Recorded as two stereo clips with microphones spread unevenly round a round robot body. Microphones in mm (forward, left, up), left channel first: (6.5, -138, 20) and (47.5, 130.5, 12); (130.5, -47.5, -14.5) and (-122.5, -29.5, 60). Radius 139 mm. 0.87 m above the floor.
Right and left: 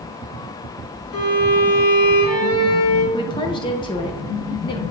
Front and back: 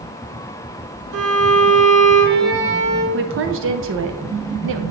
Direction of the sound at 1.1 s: 140° right.